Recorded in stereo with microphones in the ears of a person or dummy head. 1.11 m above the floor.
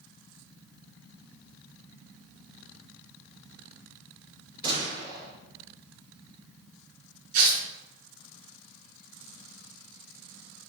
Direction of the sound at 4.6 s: 30° right (ahead or behind).